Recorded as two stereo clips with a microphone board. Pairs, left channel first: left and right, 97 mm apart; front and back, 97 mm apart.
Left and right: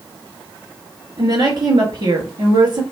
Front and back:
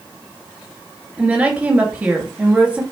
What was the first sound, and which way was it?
A woman speaking, 105° right.